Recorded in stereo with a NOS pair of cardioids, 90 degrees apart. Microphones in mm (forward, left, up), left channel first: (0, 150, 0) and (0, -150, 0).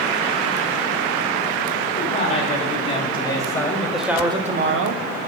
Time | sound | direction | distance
2.0 | a man speaking | 25° left | 3.5 m